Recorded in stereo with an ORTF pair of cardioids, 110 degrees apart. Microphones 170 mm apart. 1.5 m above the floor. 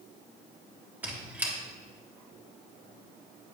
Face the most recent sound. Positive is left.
turn(degrees=-10)